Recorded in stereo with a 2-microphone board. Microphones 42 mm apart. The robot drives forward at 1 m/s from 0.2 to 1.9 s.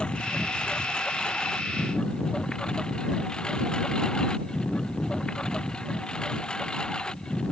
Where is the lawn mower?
25° left (ahead or behind); by 7.5 s 20° left (ahead or behind).